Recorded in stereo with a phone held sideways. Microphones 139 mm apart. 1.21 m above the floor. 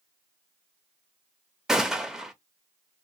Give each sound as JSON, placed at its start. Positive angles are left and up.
{"t": 1.7, "sound": "a gunshot", "side_deg": -5, "distance_m": 0.7}